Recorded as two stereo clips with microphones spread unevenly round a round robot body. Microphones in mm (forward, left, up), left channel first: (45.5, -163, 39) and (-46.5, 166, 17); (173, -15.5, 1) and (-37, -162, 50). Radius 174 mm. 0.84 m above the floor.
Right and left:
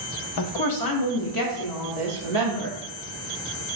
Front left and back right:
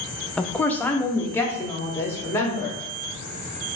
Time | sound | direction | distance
0.4 | a woman speaking | 45° right | 0.6 m